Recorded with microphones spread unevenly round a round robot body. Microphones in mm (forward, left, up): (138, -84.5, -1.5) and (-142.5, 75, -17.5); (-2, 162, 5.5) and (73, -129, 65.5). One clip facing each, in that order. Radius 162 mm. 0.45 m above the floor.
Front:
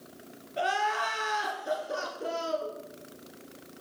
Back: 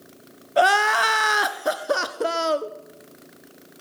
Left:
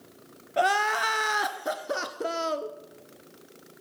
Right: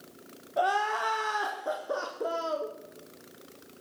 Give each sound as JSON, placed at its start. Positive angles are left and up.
{"t": 0.6, "sound": "crying", "azimuth_deg": 160, "distance_m": 1.0}